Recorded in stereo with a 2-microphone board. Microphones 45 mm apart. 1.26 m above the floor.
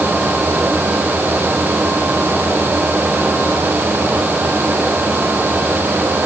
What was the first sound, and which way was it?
Only background noise.